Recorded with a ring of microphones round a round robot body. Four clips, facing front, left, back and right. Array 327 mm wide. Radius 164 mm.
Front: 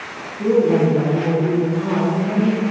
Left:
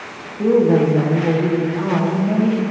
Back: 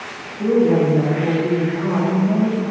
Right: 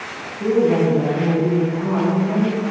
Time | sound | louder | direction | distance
0.4 | a woman speaking | left 2 dB, even | 95° left | 1.1 m